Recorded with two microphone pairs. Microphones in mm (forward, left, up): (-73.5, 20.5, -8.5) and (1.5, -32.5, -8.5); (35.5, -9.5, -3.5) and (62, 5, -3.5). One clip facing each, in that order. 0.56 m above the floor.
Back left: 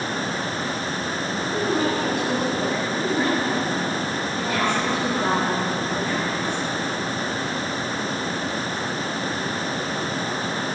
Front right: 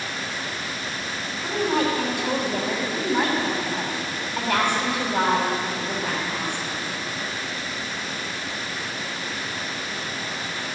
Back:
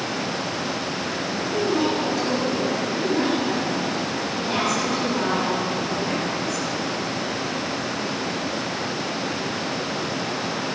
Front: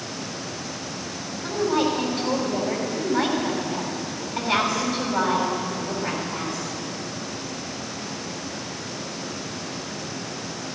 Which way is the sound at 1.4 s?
10° right.